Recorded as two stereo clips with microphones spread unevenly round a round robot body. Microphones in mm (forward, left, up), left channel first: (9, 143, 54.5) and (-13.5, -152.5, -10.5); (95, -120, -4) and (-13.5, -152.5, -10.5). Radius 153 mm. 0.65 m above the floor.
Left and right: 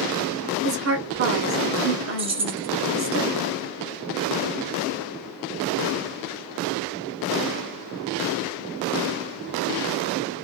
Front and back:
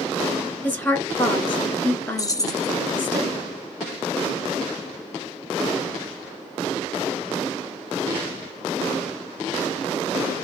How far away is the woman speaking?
About 1.8 m.